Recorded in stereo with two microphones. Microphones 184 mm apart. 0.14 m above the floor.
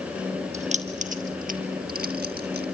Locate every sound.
0.5 s keys jangling: 40° right (ahead or behind), 2 m; by 2.6 s 60° right (ahead or behind), 1.8 m